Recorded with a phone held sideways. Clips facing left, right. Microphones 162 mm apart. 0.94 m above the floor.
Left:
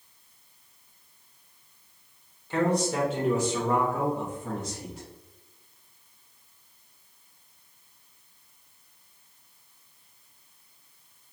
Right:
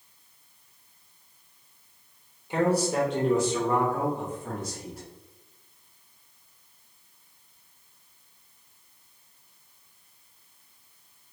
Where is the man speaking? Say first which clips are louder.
Right 1 dB; 15° right (ahead or behind), 0.6 m; by 5.1 s 20° left (ahead or behind), 2.0 m.